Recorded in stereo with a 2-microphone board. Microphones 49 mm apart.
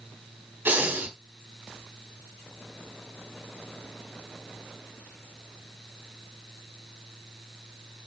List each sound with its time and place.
0.7 s breathing: 45° right (ahead or behind), 2.5 m